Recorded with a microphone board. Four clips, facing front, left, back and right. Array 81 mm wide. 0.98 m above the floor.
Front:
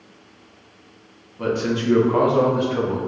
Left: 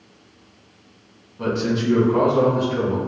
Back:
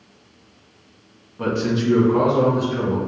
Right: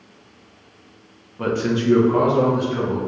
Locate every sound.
1.4 s a man speaking: 115° right, 0.6 m; by 3.0 s 5° left, 1.1 m